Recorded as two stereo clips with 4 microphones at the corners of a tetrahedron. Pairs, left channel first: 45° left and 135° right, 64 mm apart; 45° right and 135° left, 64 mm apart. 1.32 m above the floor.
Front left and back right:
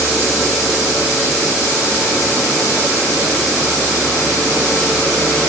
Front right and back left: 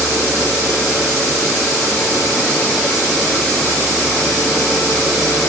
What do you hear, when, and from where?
Only background noise.